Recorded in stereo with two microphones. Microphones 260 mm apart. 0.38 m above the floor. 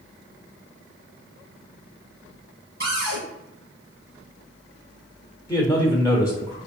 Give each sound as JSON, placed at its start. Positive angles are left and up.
{"t": 2.8, "sound": "a cupboard door", "side_deg": -55, "distance_m": 1.9}
{"t": 5.5, "sound": "a man speaking", "side_deg": 10, "distance_m": 1.0}